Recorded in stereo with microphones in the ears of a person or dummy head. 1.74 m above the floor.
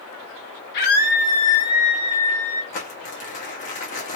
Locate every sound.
0.7 s a scream: 55° left (ahead or behind), 1.2 m; by 2.6 s 5° left (ahead or behind), 1.2 m
2.7 s crumpling: 40° left (ahead or behind), 1.1 m